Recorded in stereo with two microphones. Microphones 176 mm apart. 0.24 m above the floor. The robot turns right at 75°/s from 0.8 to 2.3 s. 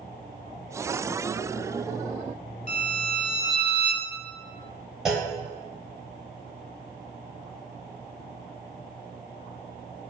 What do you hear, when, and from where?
2.7 s a violin: 40° left (ahead or behind), 0.9 m
5.0 s a clunk: centre (ahead or behind), 1.3 m